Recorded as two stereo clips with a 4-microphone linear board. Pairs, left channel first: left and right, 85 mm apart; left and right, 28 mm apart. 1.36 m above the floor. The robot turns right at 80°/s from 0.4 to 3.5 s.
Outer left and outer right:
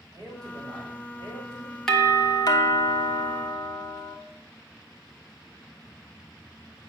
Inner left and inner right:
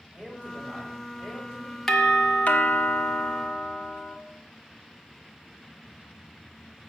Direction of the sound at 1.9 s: 5° left.